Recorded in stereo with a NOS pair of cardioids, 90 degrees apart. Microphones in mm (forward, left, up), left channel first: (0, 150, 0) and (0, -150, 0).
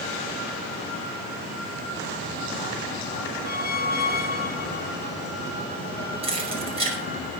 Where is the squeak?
30° left, 1.2 m.